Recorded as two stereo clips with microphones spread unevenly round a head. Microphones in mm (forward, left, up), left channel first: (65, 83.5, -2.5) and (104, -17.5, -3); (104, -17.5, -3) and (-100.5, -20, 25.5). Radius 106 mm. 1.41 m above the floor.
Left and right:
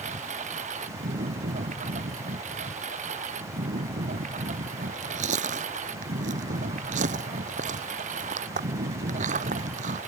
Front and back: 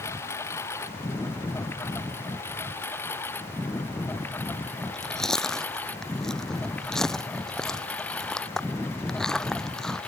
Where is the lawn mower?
80° right; by 10.1 s 85° right.